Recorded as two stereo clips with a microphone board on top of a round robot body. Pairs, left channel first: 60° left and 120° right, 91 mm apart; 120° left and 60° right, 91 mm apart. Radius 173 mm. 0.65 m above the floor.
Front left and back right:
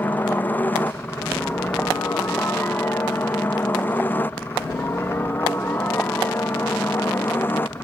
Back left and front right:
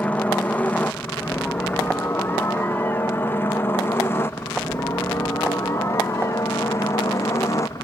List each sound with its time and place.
0.0 s a helicopter: 75° left; by 7.8 s 110° left